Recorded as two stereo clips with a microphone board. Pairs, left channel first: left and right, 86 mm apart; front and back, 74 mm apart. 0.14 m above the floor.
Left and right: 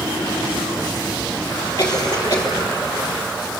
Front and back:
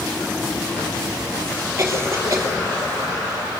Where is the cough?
130° left, 4 m.